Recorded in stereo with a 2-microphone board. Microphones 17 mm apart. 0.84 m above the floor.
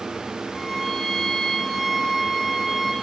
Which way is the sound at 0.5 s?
10° left (ahead or behind).